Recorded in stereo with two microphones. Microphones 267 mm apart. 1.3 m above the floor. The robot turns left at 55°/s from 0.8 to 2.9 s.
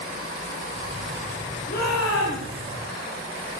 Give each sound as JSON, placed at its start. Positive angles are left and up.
{"t": 1.7, "sound": "a shout", "azimuth_deg": 145, "distance_m": 6.5}